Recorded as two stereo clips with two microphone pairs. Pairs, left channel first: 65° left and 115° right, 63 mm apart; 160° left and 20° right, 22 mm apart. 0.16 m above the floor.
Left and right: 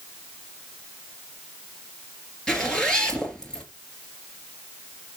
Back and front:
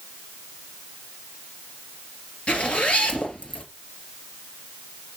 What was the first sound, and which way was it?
A zipper, 140° left.